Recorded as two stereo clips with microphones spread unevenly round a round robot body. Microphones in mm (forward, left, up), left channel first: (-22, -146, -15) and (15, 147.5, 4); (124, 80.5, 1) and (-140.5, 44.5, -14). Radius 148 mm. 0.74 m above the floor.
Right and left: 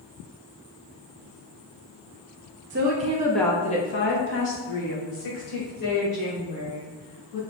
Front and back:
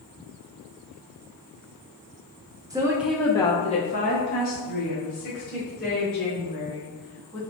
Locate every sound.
2.7 s a woman speaking: 120° left, 0.7 m; by 7.4 s 55° right, 3.5 m